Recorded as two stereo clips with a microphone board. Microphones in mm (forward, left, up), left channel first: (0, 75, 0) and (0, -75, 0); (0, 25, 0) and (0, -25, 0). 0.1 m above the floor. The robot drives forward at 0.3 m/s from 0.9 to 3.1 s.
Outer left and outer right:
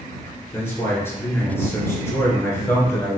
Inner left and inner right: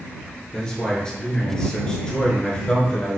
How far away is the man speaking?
About 1.3 m.